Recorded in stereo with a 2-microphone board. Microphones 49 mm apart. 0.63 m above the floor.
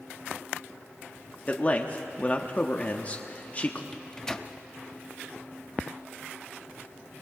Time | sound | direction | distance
1.5 | a man speaking | 30° left (ahead or behind) | 1.0 m
3.9 | a microwave | 15° left (ahead or behind) | 0.6 m